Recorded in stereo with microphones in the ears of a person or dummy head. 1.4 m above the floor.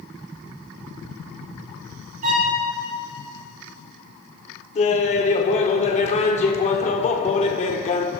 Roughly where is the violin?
Right.